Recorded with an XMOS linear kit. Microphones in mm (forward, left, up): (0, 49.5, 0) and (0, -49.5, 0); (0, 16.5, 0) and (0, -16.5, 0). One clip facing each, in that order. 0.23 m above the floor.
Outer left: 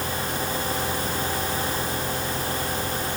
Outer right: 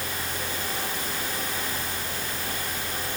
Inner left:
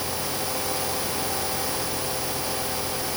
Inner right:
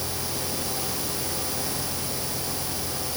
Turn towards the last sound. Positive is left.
No sound to turn to.